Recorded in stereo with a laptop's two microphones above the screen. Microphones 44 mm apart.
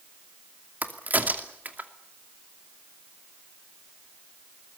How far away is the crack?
About 2.5 m.